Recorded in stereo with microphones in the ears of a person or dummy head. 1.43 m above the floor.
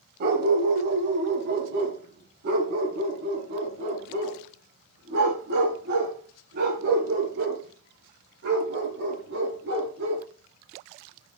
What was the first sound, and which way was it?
A dog barking, 55° right (ahead or behind).